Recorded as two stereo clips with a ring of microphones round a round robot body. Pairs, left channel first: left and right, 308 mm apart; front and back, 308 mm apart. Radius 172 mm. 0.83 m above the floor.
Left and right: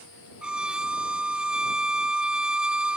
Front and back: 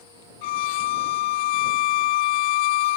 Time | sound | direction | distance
0.4 | a violin | 5° right | ?